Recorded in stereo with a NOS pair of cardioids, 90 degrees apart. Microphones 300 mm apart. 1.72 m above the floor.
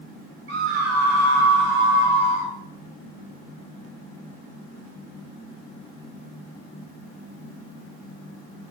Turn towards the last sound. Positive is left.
turn(degrees=0)